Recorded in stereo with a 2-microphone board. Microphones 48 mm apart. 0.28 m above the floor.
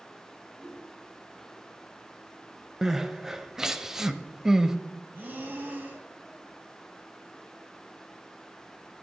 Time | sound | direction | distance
0.6 | a whoosh | 5° right (ahead or behind) | 3.5 m
2.8 | crying | 10° right (ahead or behind) | 0.6 m
5.1 | breathing | 45° right (ahead or behind) | 2 m